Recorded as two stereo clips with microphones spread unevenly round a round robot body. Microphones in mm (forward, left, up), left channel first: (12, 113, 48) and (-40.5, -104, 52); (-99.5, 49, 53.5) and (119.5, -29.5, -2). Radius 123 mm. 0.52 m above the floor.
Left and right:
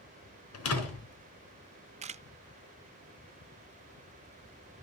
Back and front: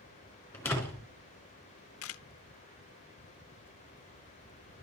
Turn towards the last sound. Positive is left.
turn(degrees=-165)